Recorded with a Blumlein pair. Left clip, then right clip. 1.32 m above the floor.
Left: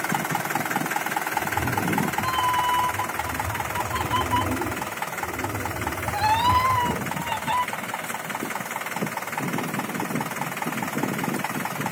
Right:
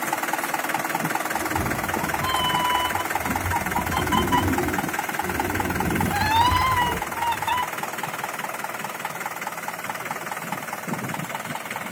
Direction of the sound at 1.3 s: 50° right.